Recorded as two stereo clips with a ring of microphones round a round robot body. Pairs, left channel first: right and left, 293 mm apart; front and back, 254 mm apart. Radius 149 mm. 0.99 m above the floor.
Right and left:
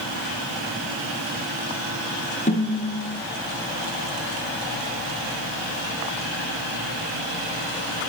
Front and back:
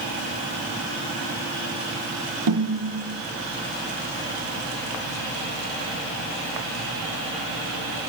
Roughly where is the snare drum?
Behind.